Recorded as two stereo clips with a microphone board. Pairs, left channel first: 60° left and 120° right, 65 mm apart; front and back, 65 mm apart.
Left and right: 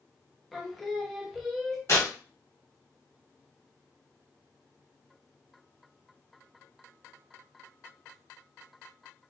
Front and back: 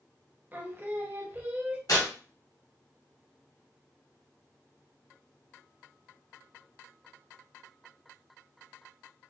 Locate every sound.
0.5 s singing: 145° left, 0.6 m
1.9 s tearing paper: 20° left, 1.8 m